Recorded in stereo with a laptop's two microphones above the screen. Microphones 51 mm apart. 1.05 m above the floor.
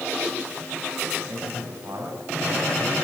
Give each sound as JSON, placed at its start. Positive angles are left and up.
{"t": 1.3, "sound": "a man speaking", "side_deg": -75, "distance_m": 7.5}